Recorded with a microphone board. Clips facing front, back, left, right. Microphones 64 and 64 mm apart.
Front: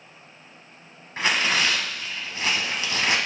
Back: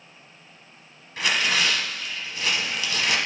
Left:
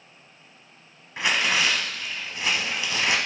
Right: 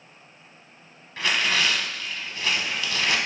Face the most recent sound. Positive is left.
turn(degrees=30)